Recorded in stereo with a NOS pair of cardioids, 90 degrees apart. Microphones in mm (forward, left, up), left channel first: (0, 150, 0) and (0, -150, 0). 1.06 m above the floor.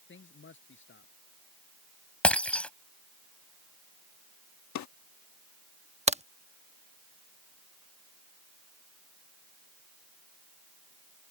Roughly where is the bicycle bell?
I don't hear a bicycle bell.